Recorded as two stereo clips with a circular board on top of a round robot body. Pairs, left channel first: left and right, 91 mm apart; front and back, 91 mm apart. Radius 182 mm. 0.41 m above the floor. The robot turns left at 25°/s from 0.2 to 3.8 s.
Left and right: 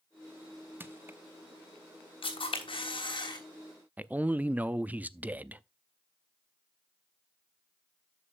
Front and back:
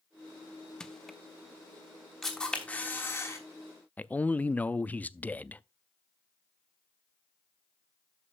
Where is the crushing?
70° right, 1.2 m; by 1.2 s 80° right, 1.2 m.